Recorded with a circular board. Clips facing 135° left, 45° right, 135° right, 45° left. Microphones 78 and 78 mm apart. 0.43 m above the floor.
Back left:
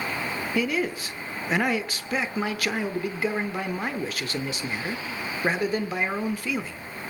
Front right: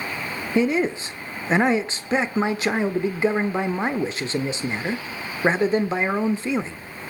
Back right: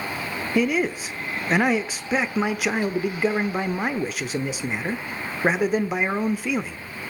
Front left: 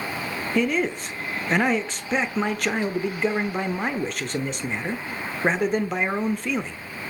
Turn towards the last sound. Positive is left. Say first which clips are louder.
# front right 7 dB, back right 1 dB
turn(degrees=-60)